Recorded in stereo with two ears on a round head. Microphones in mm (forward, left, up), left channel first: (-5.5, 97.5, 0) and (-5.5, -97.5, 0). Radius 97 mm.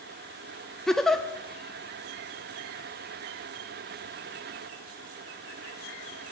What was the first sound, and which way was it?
A giggle, centre (ahead or behind).